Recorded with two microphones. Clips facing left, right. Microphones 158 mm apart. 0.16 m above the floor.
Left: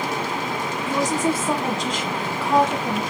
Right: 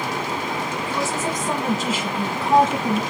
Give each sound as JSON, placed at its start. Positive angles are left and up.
{"t": 0.9, "sound": "a woman speaking", "side_deg": 20, "distance_m": 1.2}